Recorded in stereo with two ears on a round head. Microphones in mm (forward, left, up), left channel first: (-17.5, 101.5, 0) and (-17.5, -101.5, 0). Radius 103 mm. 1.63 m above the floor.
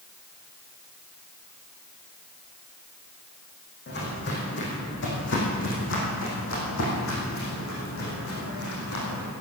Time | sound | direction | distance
3.9 | footsteps | 50° left (ahead or behind) | 5.5 m